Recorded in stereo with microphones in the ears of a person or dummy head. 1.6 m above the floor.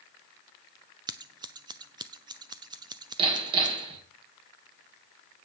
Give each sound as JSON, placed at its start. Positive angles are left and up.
{"t": 1.1, "sound": "scissors", "side_deg": -25, "distance_m": 0.7}
{"t": 3.2, "sound": "hammering", "side_deg": -30, "distance_m": 3.5}